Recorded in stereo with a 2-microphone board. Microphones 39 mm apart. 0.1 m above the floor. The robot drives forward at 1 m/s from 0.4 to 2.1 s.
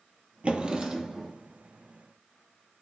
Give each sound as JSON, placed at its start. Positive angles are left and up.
{"t": 0.4, "sound": "a drawer", "side_deg": -30, "distance_m": 0.6}